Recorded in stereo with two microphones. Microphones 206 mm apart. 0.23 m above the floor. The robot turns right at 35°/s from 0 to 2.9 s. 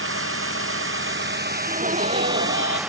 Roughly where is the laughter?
Behind right.